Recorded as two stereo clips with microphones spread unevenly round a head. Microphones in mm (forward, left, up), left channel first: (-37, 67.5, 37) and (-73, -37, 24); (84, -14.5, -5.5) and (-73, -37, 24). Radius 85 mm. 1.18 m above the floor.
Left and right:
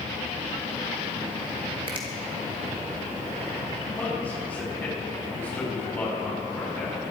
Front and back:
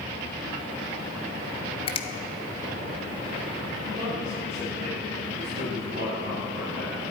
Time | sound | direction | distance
1.9 | a finger snap | 50° right | 1.3 m
4.0 | a man speaking | 145° left | 6 m